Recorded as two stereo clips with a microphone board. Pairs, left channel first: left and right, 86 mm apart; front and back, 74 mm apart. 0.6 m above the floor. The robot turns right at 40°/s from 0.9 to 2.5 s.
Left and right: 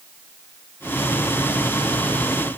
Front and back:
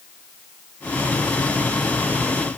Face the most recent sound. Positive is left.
No sound to turn to.